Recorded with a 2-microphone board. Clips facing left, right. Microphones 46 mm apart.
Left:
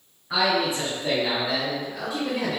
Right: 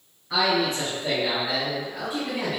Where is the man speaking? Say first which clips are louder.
Even; 15° left (ahead or behind), 1.5 m; by 2.6 s 30° right (ahead or behind), 1.4 m.